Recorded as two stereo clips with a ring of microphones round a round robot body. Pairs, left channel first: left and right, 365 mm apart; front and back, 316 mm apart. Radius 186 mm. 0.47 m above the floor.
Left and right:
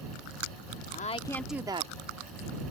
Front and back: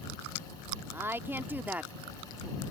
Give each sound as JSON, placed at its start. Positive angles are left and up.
{"t": 0.9, "sound": "a woman speaking", "azimuth_deg": 105}